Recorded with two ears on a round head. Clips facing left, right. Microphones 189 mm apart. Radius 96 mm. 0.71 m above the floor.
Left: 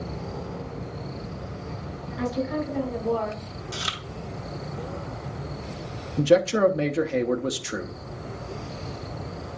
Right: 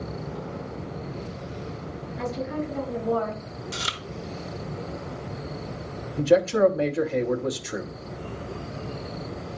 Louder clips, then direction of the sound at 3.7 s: Even; centre (ahead or behind).